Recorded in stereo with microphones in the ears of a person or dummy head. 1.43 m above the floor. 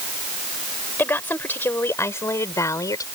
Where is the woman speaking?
10° left (ahead or behind); by 3.0 s 15° left (ahead or behind).